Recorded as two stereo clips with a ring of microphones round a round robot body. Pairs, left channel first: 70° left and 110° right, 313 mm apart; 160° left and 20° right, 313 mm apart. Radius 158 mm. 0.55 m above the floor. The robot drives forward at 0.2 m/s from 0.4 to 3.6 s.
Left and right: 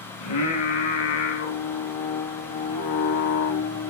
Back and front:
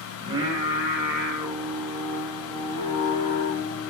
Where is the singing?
55° left, 1.0 m; by 3.9 s 95° left, 0.9 m.